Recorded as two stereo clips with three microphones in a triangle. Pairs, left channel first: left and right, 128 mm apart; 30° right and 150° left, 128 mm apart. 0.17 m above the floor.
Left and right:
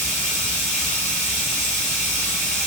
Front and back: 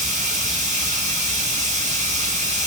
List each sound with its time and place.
0.0 s running water: straight behind, 4 m